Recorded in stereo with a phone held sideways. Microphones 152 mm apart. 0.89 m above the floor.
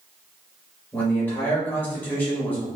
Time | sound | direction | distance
0.9 | a man speaking | 10° left (ahead or behind) | 1.3 m